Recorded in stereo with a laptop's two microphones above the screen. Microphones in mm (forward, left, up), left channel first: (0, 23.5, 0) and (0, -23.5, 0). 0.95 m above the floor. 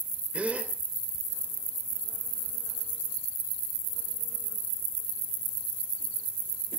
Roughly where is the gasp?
Right.